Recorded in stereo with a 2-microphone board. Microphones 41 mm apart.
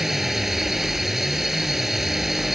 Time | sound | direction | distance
0.0 | a drone | 5° right (ahead or behind) | ?